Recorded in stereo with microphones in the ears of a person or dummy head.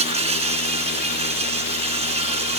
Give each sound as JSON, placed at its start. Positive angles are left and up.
{"t": 0.0, "sound": "an insect", "side_deg": -25}